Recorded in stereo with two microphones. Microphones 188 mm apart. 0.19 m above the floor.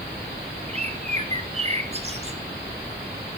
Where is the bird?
35° right (ahead or behind), 1.1 m.